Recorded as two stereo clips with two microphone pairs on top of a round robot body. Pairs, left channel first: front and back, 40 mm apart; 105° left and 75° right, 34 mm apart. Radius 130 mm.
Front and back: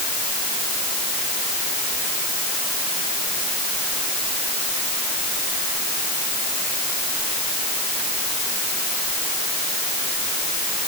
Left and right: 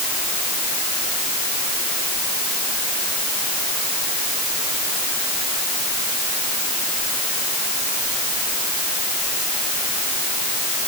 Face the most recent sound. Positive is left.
No sound to turn to.